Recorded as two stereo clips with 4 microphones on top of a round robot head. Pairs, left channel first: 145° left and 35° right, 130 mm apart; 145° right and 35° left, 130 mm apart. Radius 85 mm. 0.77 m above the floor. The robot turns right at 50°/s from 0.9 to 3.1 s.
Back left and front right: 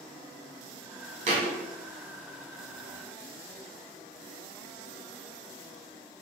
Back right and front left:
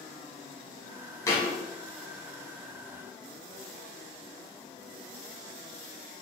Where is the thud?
80° right, 1.1 m; by 1.6 s 65° right, 1.1 m.